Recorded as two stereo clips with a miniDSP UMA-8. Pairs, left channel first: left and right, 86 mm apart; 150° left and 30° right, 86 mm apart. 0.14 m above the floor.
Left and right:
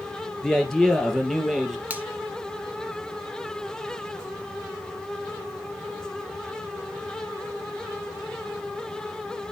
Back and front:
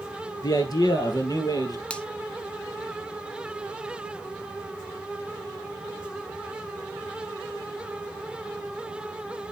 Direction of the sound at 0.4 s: 170° left.